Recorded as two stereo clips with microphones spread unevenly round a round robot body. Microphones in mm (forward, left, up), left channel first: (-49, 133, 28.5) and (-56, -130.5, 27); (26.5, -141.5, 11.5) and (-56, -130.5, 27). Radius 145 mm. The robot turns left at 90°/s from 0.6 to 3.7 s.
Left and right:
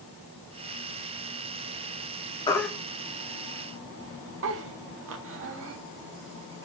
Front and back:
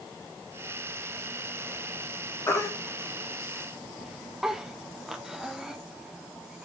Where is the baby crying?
20° left, 0.7 m; by 6.7 s 90° right, 0.7 m.